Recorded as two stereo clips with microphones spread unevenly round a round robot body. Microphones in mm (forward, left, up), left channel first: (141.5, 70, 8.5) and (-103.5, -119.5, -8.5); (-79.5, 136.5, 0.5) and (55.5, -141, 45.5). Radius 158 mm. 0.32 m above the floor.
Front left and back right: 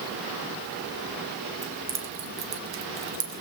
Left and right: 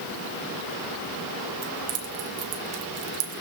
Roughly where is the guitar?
I don't hear a guitar.